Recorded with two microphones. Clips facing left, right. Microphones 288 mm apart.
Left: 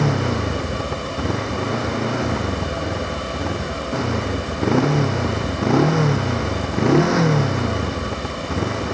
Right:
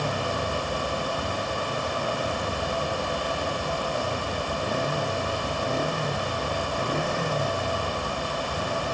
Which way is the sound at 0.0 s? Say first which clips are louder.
Left 8 dB; 85° left.